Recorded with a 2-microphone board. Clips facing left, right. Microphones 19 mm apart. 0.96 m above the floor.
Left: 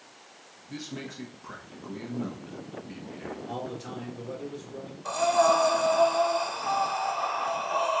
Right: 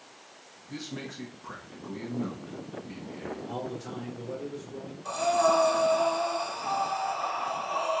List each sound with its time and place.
0.7 s a man speaking: 5° left (ahead or behind), 1.2 m
3.5 s a man speaking: 30° left (ahead or behind), 2.5 m
5.0 s breathing: 25° left (ahead or behind), 0.7 m